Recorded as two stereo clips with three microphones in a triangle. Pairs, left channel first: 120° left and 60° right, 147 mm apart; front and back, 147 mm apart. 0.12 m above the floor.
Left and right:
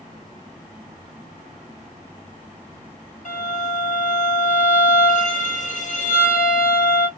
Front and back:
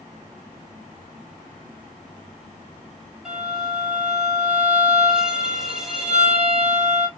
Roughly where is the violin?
Left.